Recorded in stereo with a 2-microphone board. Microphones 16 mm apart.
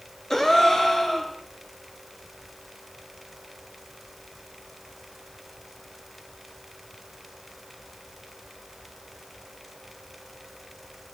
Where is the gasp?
20° left (ahead or behind), 4.5 m.